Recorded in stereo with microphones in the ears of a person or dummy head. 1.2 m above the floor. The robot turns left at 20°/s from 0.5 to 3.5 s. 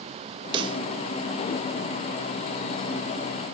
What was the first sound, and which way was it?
A pop, 20° right (ahead or behind).